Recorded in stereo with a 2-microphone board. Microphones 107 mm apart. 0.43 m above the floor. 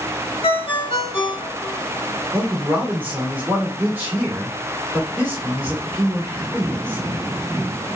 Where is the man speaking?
15° right (ahead or behind), 1.5 m.